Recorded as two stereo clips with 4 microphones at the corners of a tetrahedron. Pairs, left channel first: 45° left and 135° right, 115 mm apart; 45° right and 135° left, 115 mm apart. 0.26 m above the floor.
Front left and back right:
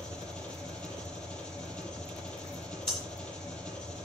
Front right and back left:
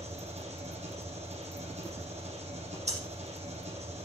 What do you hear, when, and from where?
0.0 s an engine running: 125° left, 5 m
2.9 s breathing: 130° left, 9.5 m